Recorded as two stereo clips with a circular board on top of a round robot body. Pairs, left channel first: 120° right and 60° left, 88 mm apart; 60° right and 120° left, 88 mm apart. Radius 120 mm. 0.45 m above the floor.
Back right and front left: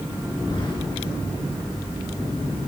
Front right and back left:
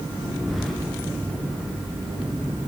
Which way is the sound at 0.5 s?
150° right.